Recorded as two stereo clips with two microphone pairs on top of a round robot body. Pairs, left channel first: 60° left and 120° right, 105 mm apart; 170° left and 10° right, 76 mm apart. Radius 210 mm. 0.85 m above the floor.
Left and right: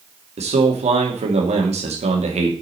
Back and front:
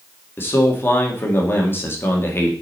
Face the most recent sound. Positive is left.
turn(degrees=-130)